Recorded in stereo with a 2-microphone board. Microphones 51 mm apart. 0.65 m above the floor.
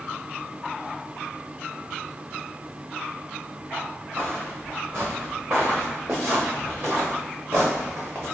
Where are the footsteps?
40° right (ahead or behind), 2 m; by 8.2 s 55° right (ahead or behind), 4.5 m.